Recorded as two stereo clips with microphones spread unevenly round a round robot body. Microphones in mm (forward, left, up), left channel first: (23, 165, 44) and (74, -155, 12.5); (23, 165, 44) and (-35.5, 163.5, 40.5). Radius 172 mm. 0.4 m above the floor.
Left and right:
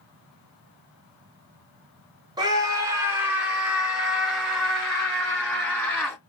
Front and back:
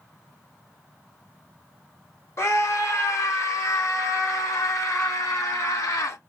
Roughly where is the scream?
Ahead.